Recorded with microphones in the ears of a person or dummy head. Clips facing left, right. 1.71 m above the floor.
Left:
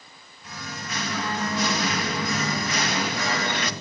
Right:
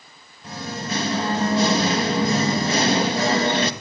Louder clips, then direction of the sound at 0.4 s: Right 8 dB; 25° right (ahead or behind).